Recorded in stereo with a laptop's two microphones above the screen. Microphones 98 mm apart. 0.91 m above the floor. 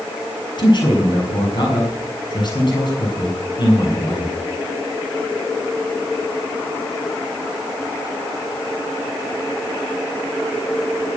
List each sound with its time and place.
0.6 s a man speaking: 50° left (ahead or behind), 6 m